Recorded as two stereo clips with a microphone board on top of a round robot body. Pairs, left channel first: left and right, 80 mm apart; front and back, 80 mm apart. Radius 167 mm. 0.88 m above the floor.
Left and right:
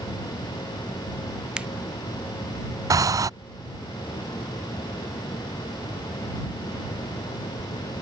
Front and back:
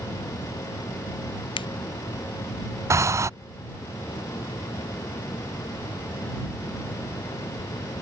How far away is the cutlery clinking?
I don't hear cutlery clinking.